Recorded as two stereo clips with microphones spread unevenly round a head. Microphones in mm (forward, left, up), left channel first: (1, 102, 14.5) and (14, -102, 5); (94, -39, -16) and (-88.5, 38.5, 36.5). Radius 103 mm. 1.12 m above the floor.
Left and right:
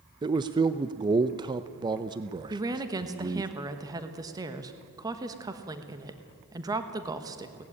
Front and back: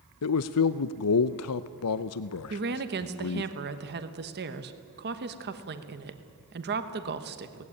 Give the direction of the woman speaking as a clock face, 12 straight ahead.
5 o'clock.